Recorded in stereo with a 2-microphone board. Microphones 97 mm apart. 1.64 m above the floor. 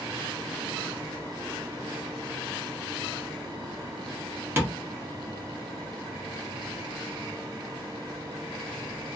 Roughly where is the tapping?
Right.